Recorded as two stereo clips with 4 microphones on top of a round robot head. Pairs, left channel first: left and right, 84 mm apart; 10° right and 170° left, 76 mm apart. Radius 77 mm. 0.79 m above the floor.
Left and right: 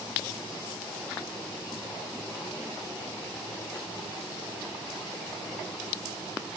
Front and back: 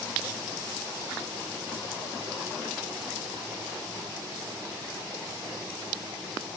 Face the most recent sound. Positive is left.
No sound to turn to.